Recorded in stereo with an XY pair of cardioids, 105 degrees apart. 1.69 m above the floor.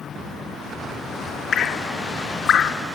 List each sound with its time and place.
1.5 s dripping: 55° left, 0.7 m